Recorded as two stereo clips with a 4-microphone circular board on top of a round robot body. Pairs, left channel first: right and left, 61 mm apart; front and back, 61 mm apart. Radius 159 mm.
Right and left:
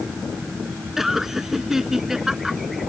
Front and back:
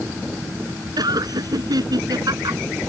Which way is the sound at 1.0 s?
175° left.